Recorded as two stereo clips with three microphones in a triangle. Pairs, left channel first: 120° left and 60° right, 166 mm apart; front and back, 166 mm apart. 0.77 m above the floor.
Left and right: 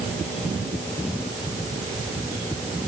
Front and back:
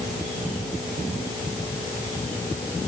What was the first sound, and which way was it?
Only background noise.